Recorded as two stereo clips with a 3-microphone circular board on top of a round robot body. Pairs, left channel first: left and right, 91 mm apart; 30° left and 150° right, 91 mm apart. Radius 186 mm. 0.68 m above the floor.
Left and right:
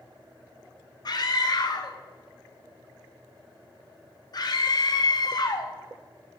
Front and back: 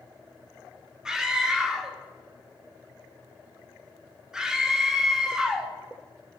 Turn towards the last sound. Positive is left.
turn(degrees=125)